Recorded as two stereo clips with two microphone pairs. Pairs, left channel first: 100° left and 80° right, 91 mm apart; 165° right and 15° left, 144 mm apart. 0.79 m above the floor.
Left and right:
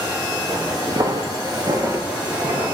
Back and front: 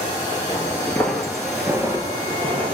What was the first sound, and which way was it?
Footsteps, 105° right.